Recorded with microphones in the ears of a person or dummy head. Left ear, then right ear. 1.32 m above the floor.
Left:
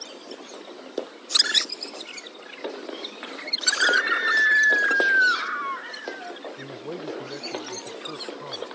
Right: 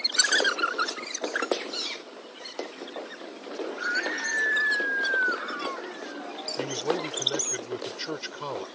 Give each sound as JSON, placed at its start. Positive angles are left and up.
{"t": 3.7, "sound": "a scream", "side_deg": 85}
{"t": 6.6, "sound": "a man speaking", "side_deg": -75}